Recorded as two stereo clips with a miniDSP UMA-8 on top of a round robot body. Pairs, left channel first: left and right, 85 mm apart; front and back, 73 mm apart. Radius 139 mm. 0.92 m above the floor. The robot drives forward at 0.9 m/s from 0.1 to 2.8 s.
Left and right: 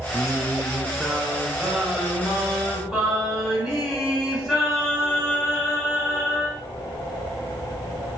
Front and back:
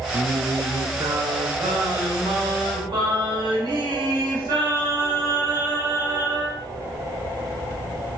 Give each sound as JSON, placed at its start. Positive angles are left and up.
{"t": 0.1, "sound": "singing", "azimuth_deg": -160, "distance_m": 0.6}